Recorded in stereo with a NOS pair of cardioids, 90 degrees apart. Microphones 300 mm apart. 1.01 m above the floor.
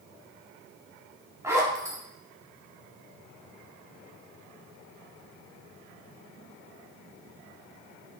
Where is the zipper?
10° right, 1.3 m.